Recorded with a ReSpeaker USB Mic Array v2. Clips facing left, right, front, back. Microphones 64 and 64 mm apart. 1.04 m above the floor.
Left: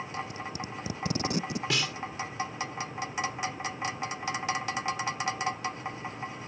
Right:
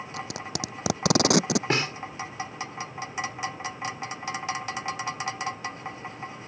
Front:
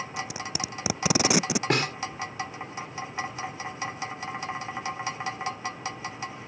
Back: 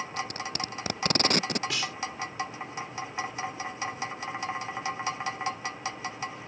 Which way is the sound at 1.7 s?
40° right.